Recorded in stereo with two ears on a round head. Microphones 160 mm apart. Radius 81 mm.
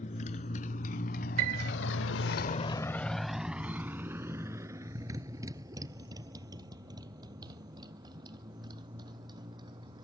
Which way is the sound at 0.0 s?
40° left (ahead or behind).